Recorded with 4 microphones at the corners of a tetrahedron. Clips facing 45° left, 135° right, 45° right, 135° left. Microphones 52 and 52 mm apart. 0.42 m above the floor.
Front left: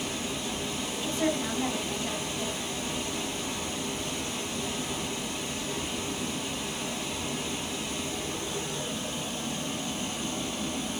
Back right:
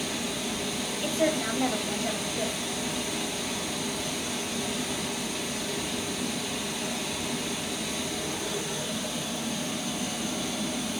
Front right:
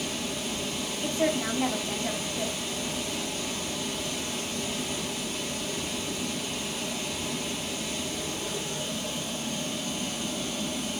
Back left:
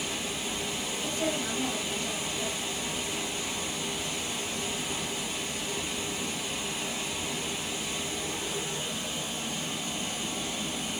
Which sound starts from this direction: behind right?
Running water, at 0.0 s.